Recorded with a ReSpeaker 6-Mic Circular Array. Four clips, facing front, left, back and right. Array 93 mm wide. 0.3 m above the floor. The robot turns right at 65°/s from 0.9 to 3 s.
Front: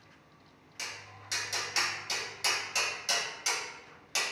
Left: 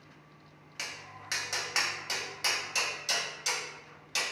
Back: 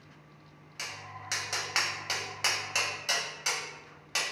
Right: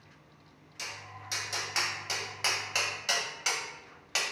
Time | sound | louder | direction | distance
0.8 | tapping | even, back 4 dB | 110° left | 0.6 m